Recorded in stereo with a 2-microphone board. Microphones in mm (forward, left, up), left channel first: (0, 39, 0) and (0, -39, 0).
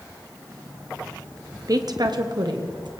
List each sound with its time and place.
1.7 s a woman speaking: 50° right (ahead or behind), 0.9 m; by 3.0 s 75° right (ahead or behind), 1.5 m